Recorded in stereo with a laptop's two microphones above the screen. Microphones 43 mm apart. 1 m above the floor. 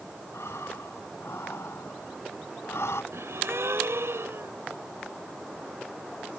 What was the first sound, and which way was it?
Breathing, 80° left.